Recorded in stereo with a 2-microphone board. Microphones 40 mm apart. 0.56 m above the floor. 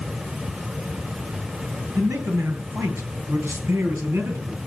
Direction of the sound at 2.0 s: 85° right.